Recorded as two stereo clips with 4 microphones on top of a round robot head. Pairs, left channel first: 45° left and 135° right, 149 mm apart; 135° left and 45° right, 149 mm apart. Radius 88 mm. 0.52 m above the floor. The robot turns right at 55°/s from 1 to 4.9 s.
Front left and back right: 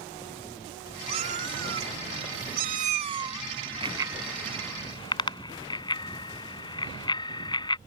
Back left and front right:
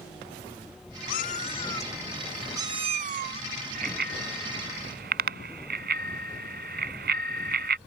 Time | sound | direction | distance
1.1 | a cat meowing | 165° left | ?
3.8 | a bicycle bell | 85° right | ?